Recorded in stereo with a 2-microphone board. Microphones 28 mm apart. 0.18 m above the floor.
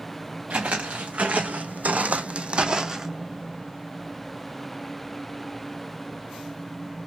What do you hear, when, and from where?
0.5 s footsteps: 65° right (ahead or behind), 1.1 m; by 3.1 s 15° right (ahead or behind), 0.6 m